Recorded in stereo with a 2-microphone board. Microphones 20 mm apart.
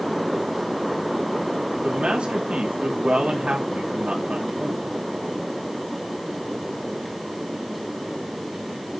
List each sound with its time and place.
1.8 s a man speaking: 55° right (ahead or behind), 3.5 m